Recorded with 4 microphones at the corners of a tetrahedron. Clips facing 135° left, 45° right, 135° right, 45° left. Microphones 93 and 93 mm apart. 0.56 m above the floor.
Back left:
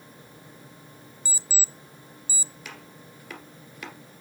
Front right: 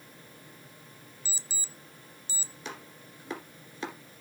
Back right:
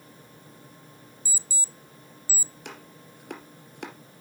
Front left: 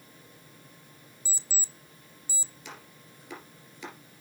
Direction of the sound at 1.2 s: 85° left.